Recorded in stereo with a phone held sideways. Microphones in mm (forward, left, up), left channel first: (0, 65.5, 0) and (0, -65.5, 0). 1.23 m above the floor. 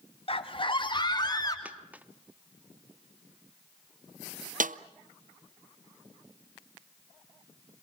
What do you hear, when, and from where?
0.3 s a scream: 45° left (ahead or behind), 2.5 m; by 1.6 s 30° left (ahead or behind), 3.5 m
1.6 s a dropped coin: 10° right (ahead or behind), 0.8 m
4.6 s a snare drum: 80° right, 0.5 m